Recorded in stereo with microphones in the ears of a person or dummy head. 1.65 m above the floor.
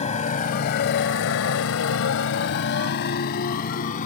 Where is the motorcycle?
35° left (ahead or behind); by 4.1 s 45° left (ahead or behind).